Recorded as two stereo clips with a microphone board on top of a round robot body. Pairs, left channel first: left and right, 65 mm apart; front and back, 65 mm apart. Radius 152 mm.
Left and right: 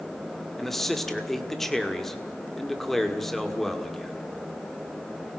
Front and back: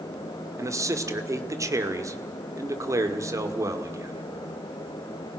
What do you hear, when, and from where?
0.6 s a man speaking: 175° left, 2 m